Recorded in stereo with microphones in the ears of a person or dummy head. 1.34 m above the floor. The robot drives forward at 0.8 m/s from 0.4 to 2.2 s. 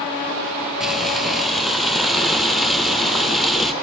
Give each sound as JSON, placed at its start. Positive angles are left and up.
{"t": 0.8, "sound": "frying", "side_deg": 0, "distance_m": 2.5}